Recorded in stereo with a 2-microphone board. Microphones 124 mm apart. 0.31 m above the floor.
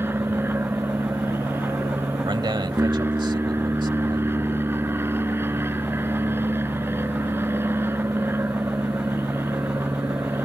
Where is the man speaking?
40° right (ahead or behind).